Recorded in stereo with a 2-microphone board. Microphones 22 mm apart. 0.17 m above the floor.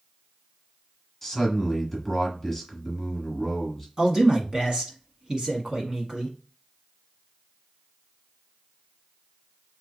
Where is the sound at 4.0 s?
40° right (ahead or behind), 1.3 m.